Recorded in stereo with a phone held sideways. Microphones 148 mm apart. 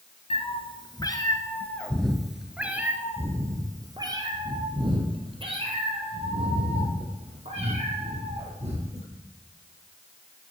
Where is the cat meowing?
45° left (ahead or behind), 1.3 m; by 9.1 s 50° right (ahead or behind), 4.5 m.